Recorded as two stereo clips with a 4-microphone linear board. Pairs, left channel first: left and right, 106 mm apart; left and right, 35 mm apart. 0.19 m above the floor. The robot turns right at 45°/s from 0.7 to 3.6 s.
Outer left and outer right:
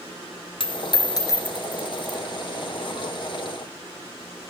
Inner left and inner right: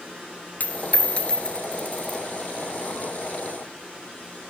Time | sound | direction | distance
0.6 | a dropped coin | 55° left (ahead or behind) | 1.4 m